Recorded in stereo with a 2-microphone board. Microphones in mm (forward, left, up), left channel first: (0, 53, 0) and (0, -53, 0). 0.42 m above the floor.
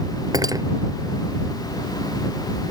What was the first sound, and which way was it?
Cutlery clinking, 35° right (ahead or behind).